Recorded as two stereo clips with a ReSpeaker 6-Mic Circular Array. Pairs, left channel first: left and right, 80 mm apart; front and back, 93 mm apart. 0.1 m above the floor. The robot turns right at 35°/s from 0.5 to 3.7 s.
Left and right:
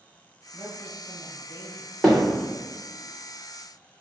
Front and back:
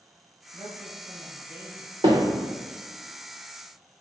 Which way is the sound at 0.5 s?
160° right.